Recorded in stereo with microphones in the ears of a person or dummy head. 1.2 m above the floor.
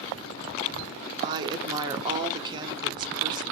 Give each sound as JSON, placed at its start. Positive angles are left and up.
{"t": 1.2, "sound": "a woman speaking", "side_deg": -15, "distance_m": 0.6}